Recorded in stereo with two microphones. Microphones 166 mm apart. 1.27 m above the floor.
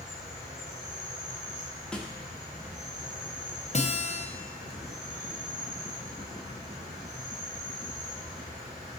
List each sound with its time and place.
0.0 s an insect: 75° right (ahead or behind), 3 m
1.9 s a snare drum: 5° left (ahead or behind), 0.9 m
3.7 s a guitar: 45° left (ahead or behind), 0.7 m